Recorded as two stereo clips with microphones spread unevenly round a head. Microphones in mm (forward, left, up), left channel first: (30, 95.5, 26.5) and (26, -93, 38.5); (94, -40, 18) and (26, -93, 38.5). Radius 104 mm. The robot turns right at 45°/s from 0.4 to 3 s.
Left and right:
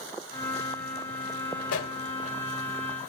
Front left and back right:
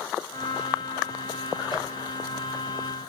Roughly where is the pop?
Left.